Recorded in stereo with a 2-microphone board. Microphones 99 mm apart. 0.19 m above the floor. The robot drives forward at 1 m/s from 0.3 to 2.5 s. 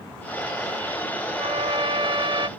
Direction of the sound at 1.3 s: 65° right (ahead or behind).